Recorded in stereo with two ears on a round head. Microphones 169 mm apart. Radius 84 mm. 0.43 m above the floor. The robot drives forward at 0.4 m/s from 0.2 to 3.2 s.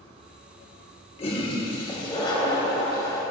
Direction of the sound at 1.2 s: 30° left (ahead or behind).